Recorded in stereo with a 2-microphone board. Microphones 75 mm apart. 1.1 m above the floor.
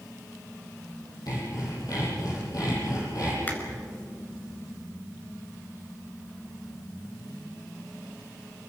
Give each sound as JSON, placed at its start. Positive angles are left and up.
{"t": 1.3, "sound": "sawing", "side_deg": 60, "distance_m": 10.0}
{"t": 3.5, "sound": "a finger snap", "side_deg": 25, "distance_m": 4.0}